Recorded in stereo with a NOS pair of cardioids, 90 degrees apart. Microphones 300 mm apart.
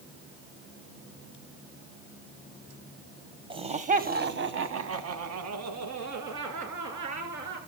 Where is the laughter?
20° right, 1.2 m; by 7.6 s 80° right, 3.5 m.